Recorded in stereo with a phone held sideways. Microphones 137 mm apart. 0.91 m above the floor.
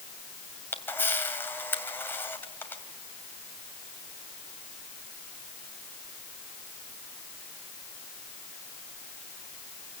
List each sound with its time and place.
0.7 s a camera shutter: 15° left (ahead or behind), 2 m